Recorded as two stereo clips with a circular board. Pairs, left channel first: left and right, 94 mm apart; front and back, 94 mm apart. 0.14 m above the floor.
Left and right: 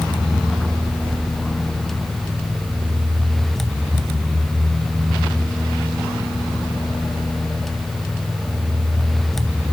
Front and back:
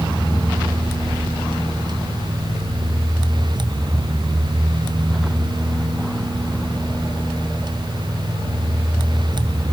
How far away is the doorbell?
No doorbell in this recording.